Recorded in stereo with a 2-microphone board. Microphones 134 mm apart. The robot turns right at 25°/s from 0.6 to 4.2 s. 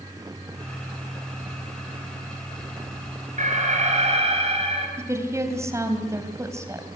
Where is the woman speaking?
20° right (ahead or behind), 3 m.